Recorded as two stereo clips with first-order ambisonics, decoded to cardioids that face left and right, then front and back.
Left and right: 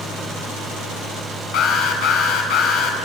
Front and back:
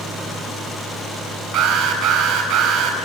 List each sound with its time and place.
1.5 s an alarm: 125° left, 4.5 m